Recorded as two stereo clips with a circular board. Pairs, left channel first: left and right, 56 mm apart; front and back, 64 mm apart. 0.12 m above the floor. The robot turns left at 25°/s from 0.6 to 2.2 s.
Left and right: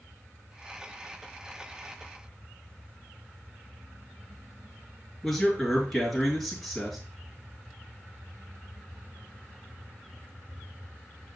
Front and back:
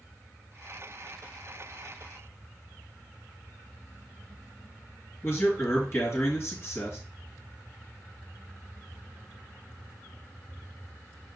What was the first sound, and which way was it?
A man speaking, 5° left.